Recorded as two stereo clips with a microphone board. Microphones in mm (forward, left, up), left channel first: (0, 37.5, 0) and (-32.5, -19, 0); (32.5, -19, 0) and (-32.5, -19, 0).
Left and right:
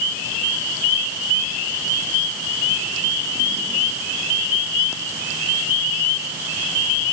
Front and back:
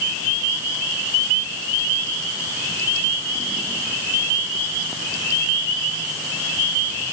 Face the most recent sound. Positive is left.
No sound to turn to.